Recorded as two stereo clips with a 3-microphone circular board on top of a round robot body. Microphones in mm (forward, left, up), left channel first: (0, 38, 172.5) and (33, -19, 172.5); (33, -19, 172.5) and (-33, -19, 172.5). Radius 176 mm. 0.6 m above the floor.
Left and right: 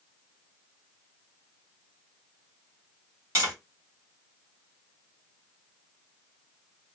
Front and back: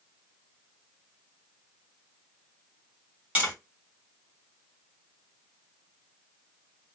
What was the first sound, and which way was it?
Tapping, 110° right.